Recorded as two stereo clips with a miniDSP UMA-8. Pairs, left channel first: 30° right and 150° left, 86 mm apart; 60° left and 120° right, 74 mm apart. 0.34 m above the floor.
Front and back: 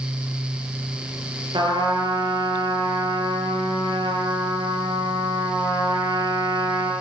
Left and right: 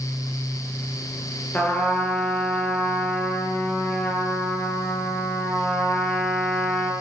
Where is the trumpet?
125° left, 7.5 m.